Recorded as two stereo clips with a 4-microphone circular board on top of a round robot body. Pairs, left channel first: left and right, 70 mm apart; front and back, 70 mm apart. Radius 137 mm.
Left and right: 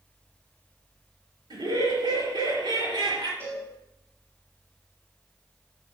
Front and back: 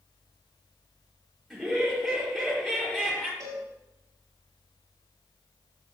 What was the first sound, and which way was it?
Laughter, 90° right.